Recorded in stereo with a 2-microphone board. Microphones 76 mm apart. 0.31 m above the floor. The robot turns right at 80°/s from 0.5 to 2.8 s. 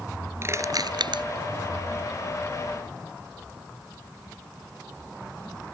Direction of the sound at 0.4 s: 35° right (ahead or behind).